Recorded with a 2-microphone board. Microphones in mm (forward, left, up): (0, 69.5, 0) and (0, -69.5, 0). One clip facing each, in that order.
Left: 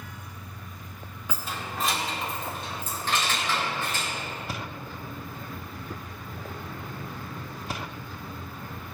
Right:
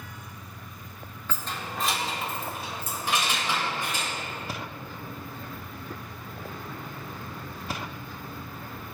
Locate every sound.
1.3 s keys jangling: 10° left (ahead or behind), 1.3 m; by 4.1 s 15° right (ahead or behind), 4 m